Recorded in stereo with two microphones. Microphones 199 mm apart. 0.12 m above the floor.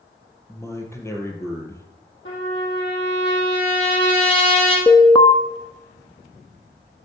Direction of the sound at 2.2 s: 70° left (ahead or behind).